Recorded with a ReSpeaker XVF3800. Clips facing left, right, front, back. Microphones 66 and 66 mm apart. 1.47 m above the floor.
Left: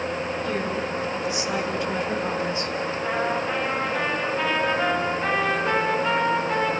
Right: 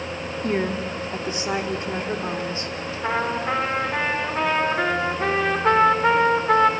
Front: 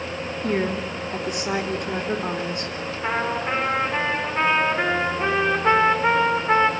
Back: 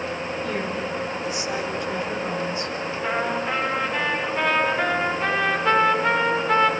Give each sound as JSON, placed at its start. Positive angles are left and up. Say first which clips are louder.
{"t": 0.4, "sound": "a woman speaking", "louder": "right 2 dB, front 6 dB", "azimuth_deg": -40, "distance_m": 3.0}
{"t": 3.0, "sound": "a trumpet", "louder": "right 3 dB, front 1 dB", "azimuth_deg": -65, "distance_m": 6.5}